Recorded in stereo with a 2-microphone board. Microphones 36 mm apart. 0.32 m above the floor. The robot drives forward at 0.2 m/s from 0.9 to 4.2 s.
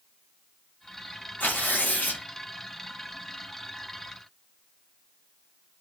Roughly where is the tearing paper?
Left.